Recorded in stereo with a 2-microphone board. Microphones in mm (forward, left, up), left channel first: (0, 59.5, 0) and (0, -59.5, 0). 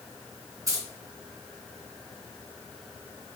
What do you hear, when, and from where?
0.7 s keys jangling: 30° right (ahead or behind), 2 m